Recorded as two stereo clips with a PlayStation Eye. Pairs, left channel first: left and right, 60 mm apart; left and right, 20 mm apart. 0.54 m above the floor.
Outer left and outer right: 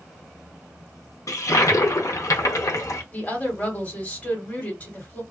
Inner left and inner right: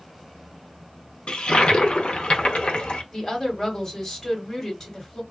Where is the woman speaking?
25° left (ahead or behind), 1.6 m.